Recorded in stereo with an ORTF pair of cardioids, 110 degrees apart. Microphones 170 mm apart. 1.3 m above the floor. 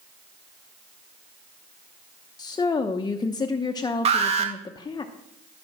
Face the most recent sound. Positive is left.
turn(degrees=-40)